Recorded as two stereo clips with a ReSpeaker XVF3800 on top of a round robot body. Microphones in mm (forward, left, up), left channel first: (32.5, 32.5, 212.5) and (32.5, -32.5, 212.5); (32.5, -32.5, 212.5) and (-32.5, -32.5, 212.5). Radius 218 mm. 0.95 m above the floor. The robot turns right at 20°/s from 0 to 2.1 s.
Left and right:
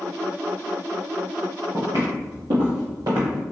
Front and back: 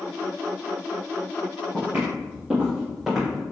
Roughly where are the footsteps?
Behind right.